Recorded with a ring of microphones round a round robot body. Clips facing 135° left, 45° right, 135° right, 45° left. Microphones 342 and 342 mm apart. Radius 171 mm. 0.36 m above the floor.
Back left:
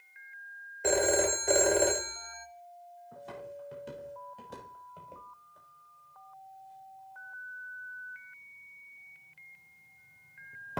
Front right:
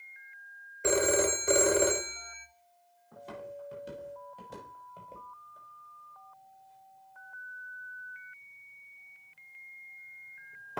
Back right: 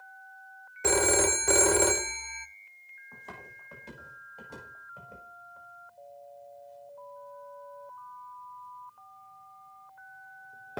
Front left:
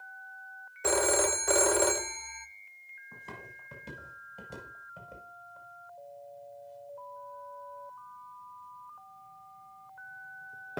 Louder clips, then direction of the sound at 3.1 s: Front right 1 dB, front left 1 dB; 40° left.